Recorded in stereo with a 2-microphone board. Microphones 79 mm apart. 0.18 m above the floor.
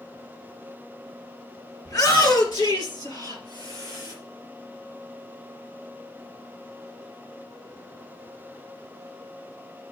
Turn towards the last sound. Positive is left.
turn(degrees=75)  # may be behind; listen again after turning